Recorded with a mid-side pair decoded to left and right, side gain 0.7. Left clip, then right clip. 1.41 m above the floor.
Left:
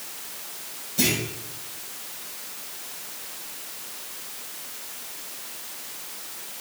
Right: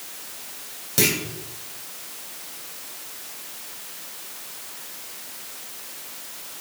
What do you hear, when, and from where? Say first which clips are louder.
1.0 s a clunk: right 3 dB; 55° right, 4.5 m